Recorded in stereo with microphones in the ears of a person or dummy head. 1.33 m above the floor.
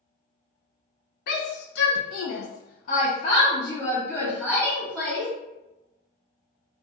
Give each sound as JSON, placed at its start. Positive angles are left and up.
{"t": 1.3, "sound": "a shout", "side_deg": 55, "distance_m": 0.9}